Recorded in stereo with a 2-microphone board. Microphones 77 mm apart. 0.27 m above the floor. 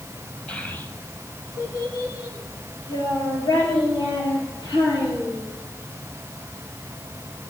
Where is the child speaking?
15° left (ahead or behind), 1.3 m; by 5.5 s 70° left (ahead or behind), 8 m.